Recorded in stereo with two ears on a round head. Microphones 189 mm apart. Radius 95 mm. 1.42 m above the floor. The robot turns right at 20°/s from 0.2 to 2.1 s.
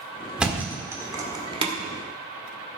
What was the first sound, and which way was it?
A thud, 5° right (ahead or behind).